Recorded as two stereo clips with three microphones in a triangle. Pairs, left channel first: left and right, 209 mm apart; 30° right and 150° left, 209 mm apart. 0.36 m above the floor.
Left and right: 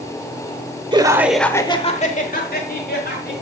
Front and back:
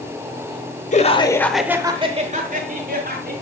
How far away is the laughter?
About 1.1 m.